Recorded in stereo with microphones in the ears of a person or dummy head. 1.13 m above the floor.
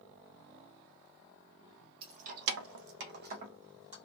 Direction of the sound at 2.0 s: 30° right (ahead or behind).